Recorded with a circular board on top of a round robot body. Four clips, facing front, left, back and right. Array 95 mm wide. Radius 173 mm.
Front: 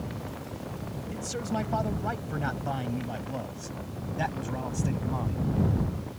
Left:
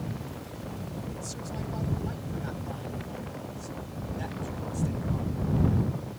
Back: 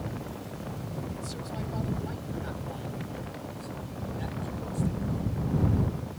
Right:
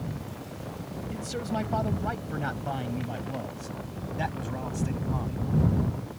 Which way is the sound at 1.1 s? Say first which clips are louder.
Right 6 dB, front 5 dB; 50° right.